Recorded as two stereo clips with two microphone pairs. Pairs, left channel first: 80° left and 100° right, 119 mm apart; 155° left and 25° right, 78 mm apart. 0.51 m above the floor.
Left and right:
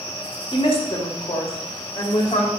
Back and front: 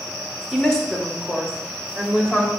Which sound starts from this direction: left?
A woman speaking, at 0.5 s.